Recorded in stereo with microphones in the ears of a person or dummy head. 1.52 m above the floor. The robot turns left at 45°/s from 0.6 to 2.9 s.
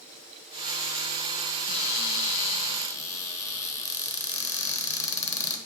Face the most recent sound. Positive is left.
turn(degrees=15)